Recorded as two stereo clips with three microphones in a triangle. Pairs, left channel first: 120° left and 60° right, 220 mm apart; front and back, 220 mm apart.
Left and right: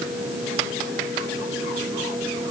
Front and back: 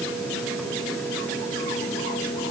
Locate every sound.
Only background noise.